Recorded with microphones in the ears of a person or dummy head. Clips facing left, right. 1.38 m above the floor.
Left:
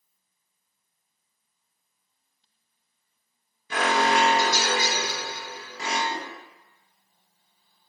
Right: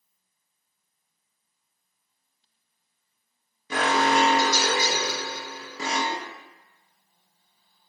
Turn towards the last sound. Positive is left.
turn(degrees=-35)  # may be behind; listen again after turning